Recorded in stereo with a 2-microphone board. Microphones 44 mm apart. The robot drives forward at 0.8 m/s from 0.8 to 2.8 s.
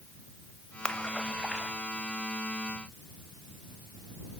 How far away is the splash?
About 1.0 m.